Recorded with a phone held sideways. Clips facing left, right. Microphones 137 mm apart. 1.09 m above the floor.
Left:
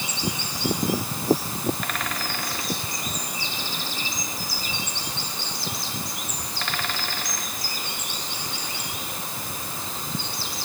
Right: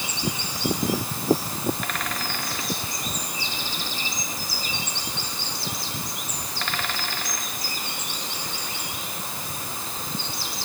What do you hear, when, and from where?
Only background noise.